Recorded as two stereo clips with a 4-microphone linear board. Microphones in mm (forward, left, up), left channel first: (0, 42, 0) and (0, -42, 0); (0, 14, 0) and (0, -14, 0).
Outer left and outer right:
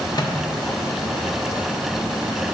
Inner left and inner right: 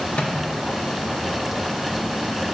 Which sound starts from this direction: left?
A microwave, at 0.1 s.